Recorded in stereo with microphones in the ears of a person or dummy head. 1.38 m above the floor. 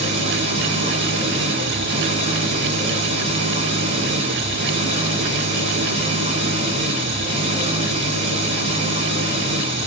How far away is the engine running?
About 5.5 m.